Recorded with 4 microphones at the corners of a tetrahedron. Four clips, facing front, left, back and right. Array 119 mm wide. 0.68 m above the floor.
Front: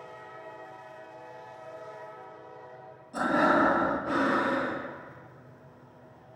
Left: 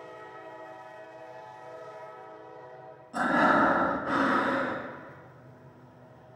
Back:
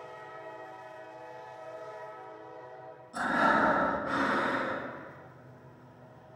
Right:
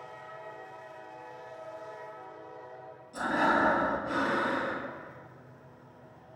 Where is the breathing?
80° left, 2.5 m.